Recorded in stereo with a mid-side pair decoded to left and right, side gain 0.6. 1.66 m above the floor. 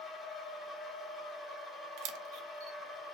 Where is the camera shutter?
70° right, 0.6 m.